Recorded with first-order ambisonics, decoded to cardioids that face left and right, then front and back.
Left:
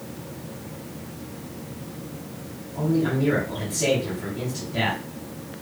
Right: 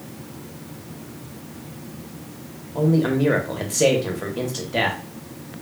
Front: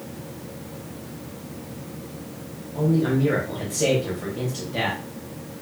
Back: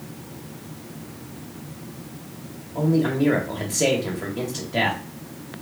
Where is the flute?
I don't hear a flute.